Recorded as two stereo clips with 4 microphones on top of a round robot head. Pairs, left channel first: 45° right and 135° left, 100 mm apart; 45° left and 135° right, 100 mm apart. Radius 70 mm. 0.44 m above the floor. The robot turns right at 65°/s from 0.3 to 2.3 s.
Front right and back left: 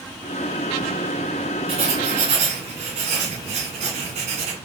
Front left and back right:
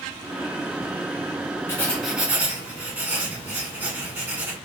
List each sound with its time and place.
1.7 s writing: 110° left, 1.8 m; by 4.5 s 150° left, 1.8 m